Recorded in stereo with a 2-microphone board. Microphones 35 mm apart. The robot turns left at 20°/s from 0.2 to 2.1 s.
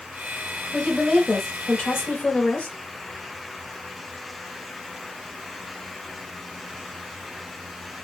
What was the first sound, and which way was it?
A woman speaking, 15° left (ahead or behind).